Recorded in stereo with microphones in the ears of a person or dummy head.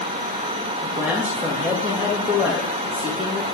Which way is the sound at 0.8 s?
10° right (ahead or behind).